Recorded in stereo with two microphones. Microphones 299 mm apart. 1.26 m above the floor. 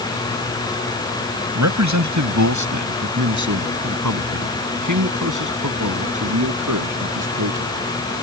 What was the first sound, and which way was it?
A man speaking, 70° right (ahead or behind).